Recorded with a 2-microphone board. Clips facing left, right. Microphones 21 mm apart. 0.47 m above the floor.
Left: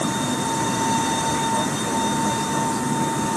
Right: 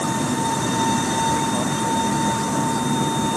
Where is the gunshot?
I don't hear a gunshot.